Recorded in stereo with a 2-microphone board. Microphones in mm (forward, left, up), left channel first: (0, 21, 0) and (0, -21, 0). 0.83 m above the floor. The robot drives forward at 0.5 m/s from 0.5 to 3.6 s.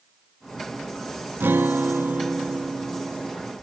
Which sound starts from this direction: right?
A guitar, at 1.4 s.